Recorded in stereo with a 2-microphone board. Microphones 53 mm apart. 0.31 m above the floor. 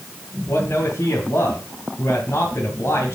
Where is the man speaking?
60° left (ahead or behind), 2.5 m.